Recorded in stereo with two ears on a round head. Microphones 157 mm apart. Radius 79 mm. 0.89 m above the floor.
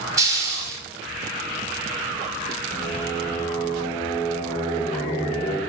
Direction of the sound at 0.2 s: 20° right (ahead or behind).